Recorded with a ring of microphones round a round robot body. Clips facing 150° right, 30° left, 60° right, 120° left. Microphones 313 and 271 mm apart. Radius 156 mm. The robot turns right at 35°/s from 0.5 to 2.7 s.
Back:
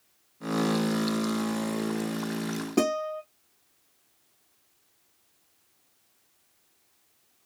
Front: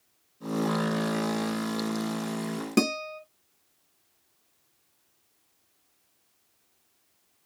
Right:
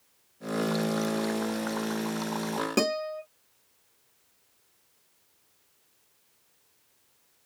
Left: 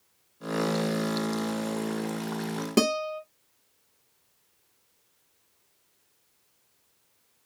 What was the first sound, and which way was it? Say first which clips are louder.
A guitar: front 1 dB, left 5 dB; 65° left.